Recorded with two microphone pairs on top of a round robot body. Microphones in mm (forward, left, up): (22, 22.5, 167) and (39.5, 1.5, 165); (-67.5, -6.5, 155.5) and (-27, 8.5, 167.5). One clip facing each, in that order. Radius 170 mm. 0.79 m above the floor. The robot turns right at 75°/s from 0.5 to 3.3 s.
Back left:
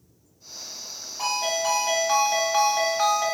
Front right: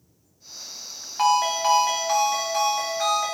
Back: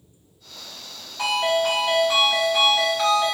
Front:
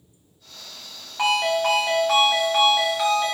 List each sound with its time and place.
1.2 s a ringtone: 25° right, 1.3 m; by 3.4 s 130° left, 1.3 m